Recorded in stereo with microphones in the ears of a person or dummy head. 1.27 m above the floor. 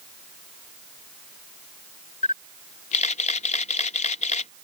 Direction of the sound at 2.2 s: 35° left (ahead or behind).